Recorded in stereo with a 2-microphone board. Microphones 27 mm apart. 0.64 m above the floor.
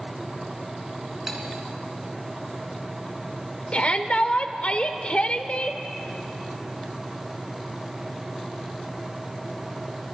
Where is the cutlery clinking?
15° right (ahead or behind), 4.5 m.